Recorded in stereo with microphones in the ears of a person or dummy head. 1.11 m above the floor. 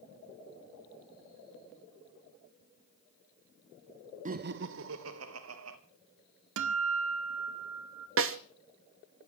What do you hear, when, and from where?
4.2 s laughter: 35° right (ahead or behind), 0.7 m; by 5.8 s 80° right, 2 m
6.6 s a guitar: 70° right (ahead or behind), 1.3 m
8.2 s a snare drum: 60° right (ahead or behind), 1.0 m